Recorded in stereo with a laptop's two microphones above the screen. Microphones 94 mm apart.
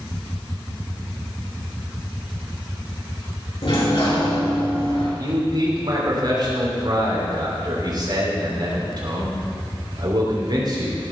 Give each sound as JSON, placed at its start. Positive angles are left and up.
{"t": 3.6, "sound": "a sliding door", "side_deg": 70, "distance_m": 5.0}
{"t": 5.2, "sound": "a man speaking", "side_deg": -50, "distance_m": 3.0}